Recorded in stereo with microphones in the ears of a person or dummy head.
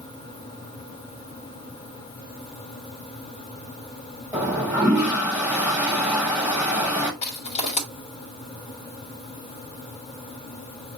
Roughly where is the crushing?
Left.